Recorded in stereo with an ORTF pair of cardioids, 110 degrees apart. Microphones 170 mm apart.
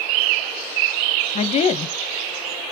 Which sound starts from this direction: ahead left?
A woman speaking, at 1.4 s.